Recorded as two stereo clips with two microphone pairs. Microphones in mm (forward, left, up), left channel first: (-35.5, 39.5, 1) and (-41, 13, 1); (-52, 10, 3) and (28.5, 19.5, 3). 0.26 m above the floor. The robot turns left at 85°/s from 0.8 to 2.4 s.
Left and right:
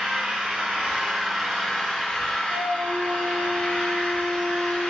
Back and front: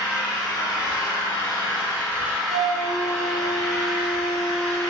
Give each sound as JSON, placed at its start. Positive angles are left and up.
{"t": 0.0, "sound": "an engine running", "azimuth_deg": -130, "distance_m": 1.8}
{"t": 2.5, "sound": "a flute", "azimuth_deg": -85, "distance_m": 1.1}